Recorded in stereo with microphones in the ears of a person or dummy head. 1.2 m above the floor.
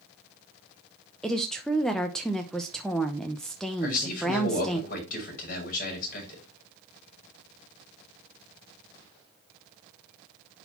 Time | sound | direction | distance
1.2 | a woman speaking | centre (ahead or behind) | 0.8 m
3.8 | a man speaking | 50° left (ahead or behind) | 6 m